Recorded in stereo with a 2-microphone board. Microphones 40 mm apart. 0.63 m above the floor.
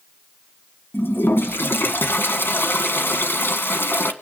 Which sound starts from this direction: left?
A toilet flushing, at 0.9 s.